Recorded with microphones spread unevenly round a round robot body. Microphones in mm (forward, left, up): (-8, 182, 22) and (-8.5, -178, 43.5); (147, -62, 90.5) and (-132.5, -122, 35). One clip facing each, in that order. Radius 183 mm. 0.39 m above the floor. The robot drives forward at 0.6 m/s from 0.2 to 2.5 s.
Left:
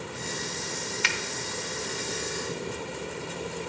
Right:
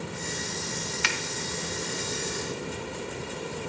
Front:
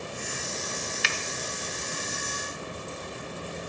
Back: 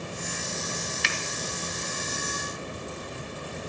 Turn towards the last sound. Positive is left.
turn(degrees=-145)